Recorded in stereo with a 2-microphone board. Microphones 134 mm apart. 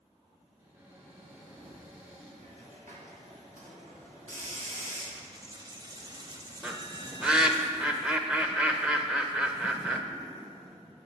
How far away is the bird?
About 0.8 m.